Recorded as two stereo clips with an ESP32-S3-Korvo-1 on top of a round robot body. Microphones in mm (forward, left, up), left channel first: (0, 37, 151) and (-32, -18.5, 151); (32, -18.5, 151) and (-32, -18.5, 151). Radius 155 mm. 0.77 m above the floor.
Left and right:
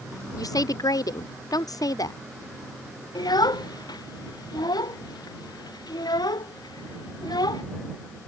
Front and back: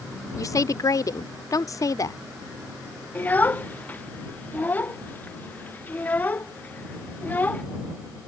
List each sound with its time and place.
0.4 s a woman speaking: 35° left
3.1 s a child speaking: 65° left